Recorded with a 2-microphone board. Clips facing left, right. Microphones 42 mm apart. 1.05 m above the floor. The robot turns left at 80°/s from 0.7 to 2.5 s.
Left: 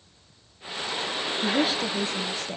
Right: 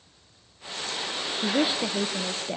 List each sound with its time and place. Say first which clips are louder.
1.4 s a woman speaking: even; 5° right (ahead or behind), 0.5 m; by 2.6 s 20° right (ahead or behind), 0.5 m